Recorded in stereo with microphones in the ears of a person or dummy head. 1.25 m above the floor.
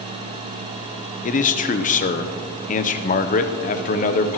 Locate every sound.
1.2 s a man speaking: 40° left (ahead or behind), 0.7 m